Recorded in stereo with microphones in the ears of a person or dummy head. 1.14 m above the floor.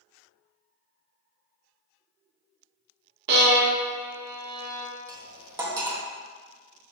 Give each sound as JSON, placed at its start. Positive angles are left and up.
{"t": 3.3, "sound": "a violin", "side_deg": -55, "distance_m": 0.6}
{"t": 5.1, "sound": "cutlery clinking", "side_deg": -15, "distance_m": 0.5}